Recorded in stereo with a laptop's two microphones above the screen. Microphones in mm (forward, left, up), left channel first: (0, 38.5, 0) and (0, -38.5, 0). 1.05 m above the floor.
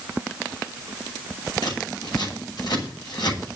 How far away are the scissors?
About 6 m.